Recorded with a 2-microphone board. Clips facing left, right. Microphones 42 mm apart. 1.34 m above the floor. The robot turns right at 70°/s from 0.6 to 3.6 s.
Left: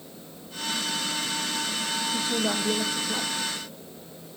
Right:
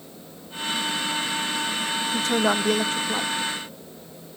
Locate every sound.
2.1 s a woman speaking: 105° right, 1.1 m; by 3.3 s 20° right, 1.1 m